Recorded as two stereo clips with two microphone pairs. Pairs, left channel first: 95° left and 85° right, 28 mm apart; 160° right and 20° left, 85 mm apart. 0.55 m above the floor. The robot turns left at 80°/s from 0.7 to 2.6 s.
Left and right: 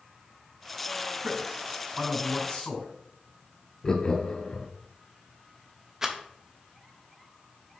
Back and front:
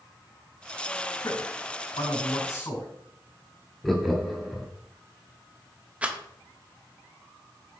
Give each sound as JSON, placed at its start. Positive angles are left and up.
{"t": 1.2, "sound": "a man speaking", "azimuth_deg": -105, "distance_m": 3.5}
{"t": 3.8, "sound": "laughter", "azimuth_deg": 110, "distance_m": 0.7}
{"t": 6.0, "sound": "a rattle", "azimuth_deg": -35, "distance_m": 0.8}